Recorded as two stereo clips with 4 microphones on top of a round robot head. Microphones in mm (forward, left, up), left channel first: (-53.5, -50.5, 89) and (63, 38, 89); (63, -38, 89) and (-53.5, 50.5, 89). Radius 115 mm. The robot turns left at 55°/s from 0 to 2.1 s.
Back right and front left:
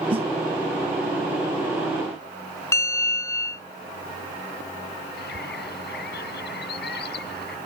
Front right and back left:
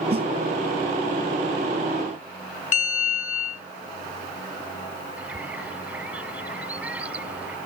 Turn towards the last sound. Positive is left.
turn(degrees=-135)